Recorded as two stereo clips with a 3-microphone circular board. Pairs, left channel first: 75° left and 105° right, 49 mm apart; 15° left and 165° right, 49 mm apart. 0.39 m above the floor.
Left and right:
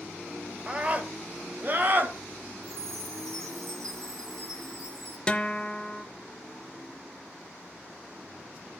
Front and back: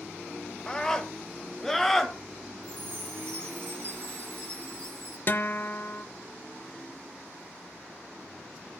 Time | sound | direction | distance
0.7 | a scream | 50° right | 1.1 m
2.6 | a chime | 125° right | 5.5 m
5.3 | a guitar | 10° left | 0.5 m